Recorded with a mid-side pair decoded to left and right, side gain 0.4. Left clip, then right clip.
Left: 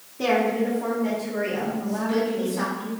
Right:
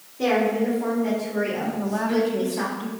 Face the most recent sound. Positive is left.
turn(degrees=-55)